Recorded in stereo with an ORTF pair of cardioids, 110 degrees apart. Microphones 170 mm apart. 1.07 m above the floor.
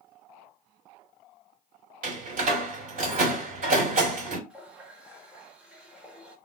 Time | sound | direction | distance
2.0 | a door slam | 50° right | 2 m
4.5 | a running tap | 5° right | 1.3 m